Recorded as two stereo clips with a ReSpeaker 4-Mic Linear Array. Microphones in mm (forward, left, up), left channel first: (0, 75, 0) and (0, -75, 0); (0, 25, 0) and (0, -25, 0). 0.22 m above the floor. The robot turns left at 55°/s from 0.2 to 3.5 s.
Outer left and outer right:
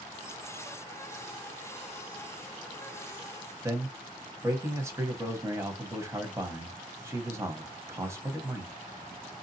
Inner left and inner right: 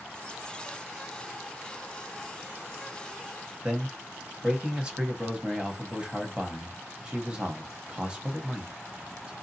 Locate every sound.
3.6 s a man speaking: 20° right (ahead or behind), 1.0 m